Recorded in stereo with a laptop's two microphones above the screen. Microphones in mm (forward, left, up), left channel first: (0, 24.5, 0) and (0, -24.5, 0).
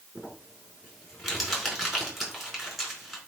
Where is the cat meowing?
No cat meowing in this recording.